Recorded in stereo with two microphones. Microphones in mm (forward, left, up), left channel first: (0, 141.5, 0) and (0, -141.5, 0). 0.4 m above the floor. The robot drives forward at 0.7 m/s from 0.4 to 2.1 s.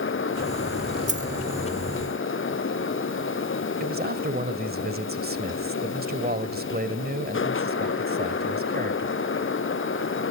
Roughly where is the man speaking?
Right.